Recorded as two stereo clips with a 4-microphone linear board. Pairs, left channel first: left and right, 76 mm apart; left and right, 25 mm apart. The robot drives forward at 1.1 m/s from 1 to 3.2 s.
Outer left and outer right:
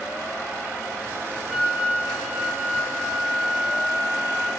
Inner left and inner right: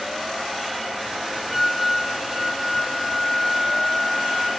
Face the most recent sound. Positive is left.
turn(degrees=0)  # may be behind; listen again after turning